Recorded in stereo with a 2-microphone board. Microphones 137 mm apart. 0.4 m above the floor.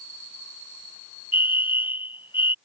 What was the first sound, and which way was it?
A fire alarm, 40° left (ahead or behind).